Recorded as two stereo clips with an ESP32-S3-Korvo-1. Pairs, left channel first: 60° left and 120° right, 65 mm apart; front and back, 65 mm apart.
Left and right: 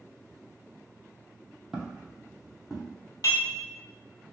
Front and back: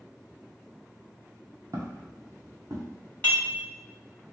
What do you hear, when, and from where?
1.7 s footsteps: 150° left, 0.9 m; by 3.0 s 155° left, 1.6 m
3.2 s dishes clattering: 65° left, 1.5 m